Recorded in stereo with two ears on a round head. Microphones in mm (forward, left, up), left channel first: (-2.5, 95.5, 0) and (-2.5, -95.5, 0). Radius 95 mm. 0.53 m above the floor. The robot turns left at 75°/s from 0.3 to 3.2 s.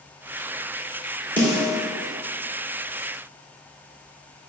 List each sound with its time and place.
1.4 s a snare drum: 10° left (ahead or behind), 1.5 m; by 1.7 s 15° right (ahead or behind), 1.5 m